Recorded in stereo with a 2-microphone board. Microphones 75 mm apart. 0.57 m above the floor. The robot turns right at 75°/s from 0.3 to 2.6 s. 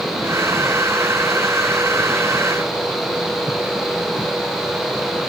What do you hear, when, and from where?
Only background noise.